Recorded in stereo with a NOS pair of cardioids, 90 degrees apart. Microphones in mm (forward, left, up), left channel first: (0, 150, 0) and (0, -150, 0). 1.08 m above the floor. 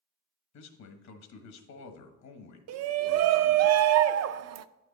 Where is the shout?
60° right, 0.6 m.